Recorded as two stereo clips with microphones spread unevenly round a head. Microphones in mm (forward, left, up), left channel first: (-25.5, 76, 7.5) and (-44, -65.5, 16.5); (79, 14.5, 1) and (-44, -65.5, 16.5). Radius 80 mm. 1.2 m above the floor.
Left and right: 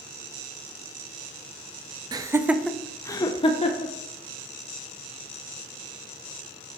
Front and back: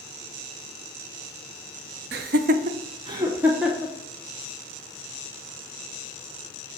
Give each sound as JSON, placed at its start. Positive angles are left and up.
{"t": 2.1, "sound": "laughter", "azimuth_deg": -160, "distance_m": 0.7}